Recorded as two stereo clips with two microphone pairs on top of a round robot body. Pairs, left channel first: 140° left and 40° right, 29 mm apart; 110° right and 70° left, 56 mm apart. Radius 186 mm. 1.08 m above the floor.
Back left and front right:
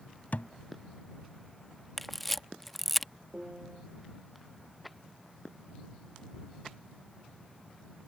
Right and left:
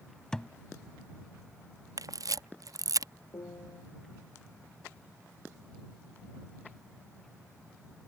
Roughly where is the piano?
Right.